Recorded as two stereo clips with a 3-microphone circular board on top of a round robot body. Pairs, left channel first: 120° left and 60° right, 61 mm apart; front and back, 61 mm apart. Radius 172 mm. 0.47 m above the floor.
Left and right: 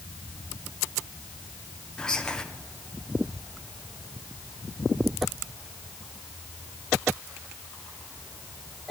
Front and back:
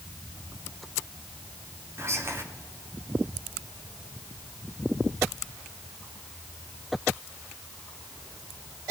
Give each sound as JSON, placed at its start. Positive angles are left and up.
{"t": 2.0, "sound": "whispering", "azimuth_deg": -165, "distance_m": 1.7}